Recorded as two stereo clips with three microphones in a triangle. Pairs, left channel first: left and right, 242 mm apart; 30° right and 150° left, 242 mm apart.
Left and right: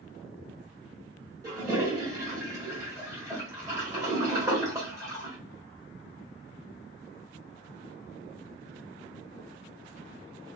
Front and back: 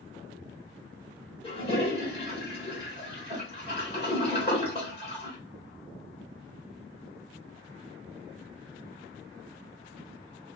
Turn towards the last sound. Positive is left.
turn(degrees=-30)